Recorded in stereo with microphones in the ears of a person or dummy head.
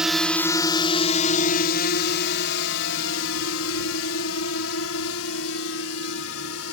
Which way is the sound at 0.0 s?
5° right (ahead or behind).